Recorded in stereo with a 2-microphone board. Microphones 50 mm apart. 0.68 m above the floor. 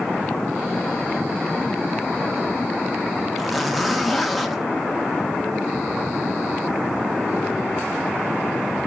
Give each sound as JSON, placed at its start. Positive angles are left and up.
{"t": 3.4, "sound": "a zipper", "side_deg": 0, "distance_m": 1.1}